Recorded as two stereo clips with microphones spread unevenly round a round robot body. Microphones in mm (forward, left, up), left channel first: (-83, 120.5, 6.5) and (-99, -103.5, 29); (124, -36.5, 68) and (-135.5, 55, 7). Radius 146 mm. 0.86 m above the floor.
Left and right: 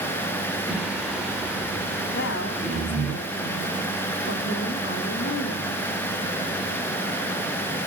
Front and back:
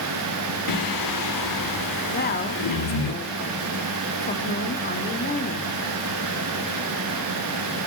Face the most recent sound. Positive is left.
turn(degrees=40)